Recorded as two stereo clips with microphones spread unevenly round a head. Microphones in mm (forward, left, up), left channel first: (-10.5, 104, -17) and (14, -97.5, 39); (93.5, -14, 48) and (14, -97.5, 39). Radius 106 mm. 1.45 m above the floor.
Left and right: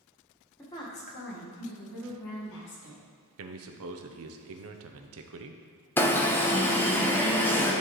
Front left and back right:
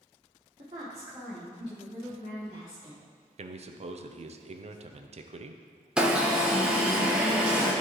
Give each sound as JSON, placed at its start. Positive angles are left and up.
{"t": 0.6, "sound": "a woman speaking", "azimuth_deg": 175, "distance_m": 1.5}
{"t": 3.4, "sound": "a man speaking", "azimuth_deg": -110, "distance_m": 0.6}
{"t": 6.0, "sound": "an alarm", "azimuth_deg": 150, "distance_m": 0.8}